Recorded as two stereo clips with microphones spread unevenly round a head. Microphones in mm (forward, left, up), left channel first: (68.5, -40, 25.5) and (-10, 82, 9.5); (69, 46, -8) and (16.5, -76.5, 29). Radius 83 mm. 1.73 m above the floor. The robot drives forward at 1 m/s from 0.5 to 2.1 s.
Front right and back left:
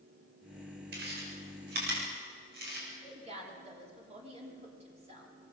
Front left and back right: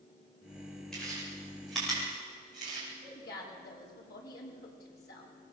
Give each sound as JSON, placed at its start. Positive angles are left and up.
{"t": 0.9, "sound": "chewing", "azimuth_deg": 155, "distance_m": 7.5}
{"t": 3.0, "sound": "a woman speaking", "azimuth_deg": 75, "distance_m": 5.5}